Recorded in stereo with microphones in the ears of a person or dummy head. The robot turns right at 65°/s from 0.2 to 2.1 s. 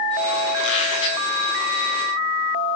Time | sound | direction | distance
0.6 | a squeak | 115° left | 9 m